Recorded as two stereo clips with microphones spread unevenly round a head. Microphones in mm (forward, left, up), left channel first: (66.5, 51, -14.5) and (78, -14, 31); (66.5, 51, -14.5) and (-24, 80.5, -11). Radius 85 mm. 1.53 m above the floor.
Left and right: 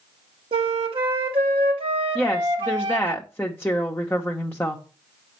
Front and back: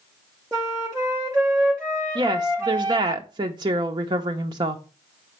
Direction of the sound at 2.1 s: 160° right.